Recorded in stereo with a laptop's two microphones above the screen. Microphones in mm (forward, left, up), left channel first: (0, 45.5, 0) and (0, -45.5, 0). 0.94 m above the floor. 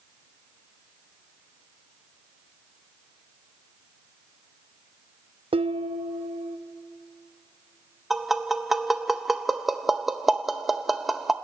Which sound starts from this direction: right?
Dishes clattering, at 5.5 s.